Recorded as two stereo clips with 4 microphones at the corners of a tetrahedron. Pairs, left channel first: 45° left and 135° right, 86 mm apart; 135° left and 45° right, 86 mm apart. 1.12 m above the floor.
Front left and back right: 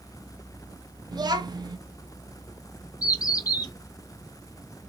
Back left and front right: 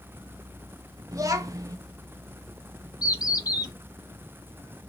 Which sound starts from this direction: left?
A bird, at 3.0 s.